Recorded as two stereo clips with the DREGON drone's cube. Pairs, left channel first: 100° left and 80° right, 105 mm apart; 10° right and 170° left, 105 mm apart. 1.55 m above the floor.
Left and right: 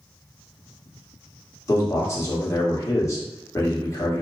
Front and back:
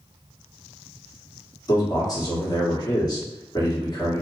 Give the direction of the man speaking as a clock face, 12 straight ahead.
11 o'clock.